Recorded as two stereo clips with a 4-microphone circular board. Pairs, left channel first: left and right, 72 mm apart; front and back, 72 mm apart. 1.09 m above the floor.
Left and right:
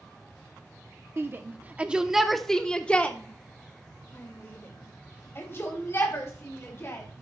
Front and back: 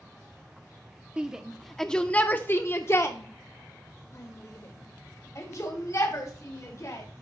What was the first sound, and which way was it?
A shout, 110° right.